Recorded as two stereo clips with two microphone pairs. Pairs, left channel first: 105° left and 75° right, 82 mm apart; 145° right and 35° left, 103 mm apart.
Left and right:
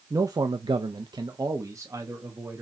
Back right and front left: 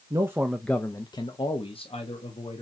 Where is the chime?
I don't hear a chime.